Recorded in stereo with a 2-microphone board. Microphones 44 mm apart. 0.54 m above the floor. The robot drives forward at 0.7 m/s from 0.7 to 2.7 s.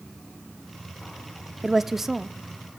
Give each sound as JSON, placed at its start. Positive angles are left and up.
{"t": 1.6, "sound": "a woman speaking", "side_deg": -5, "distance_m": 0.6}